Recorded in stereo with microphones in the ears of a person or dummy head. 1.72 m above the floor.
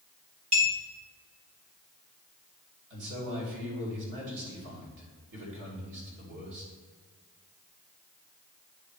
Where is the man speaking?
70° right (ahead or behind), 3 m.